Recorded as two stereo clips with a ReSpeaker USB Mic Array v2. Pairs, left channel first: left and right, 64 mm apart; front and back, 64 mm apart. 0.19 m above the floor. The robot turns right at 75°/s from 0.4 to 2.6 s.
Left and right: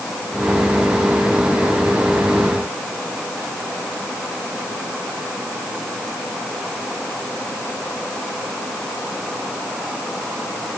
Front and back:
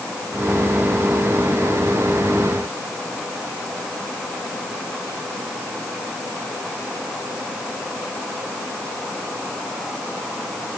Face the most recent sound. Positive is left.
No sound to turn to.